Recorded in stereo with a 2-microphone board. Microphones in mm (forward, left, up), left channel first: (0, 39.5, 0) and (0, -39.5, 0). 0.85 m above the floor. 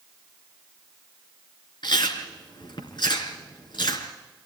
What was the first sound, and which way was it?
Chewing, 75° left (ahead or behind).